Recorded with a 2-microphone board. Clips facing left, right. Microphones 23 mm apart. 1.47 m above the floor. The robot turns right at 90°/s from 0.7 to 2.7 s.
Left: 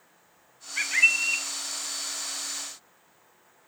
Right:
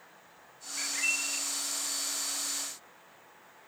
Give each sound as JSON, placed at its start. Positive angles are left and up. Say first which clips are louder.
{"t": 0.8, "sound": "a bird", "louder": "left 9 dB", "azimuth_deg": 60, "distance_m": 1.5}